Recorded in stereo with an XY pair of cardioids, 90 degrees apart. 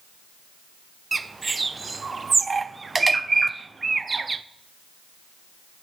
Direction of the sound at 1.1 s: 30° right.